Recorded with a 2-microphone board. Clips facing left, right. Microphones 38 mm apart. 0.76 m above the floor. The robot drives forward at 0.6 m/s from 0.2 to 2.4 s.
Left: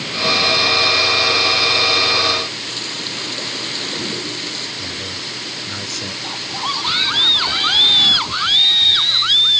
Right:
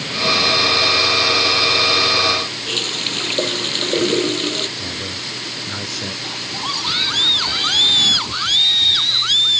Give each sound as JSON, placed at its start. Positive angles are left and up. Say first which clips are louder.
{"t": 2.7, "sound": "a running tap", "louder": "right 4 dB", "side_deg": -55}
{"t": 4.8, "sound": "a man speaking", "louder": "even", "side_deg": -5}
{"t": 6.2, "sound": "a scream", "louder": "left 4 dB", "side_deg": 15}